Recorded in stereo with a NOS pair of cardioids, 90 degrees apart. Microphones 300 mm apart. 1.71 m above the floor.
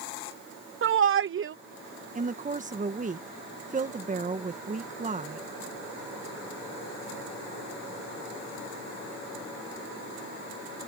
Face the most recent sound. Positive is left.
turn(degrees=-25)